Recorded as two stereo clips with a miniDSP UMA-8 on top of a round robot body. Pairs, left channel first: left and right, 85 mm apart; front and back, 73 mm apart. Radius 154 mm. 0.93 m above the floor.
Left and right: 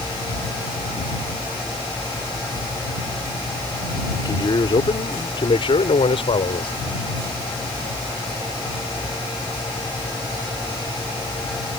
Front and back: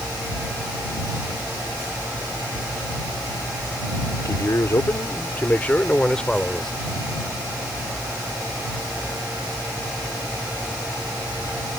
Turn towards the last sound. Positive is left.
turn(degrees=85)